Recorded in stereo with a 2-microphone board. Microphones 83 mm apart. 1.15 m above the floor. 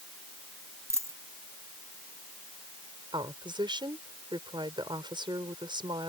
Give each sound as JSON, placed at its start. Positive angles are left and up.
{"t": 0.9, "sound": "a dropped coin", "side_deg": -35}
{"t": 3.1, "sound": "a woman speaking", "side_deg": -70}